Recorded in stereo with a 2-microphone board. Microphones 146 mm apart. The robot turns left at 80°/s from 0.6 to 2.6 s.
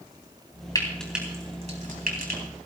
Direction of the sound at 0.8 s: 25° left (ahead or behind).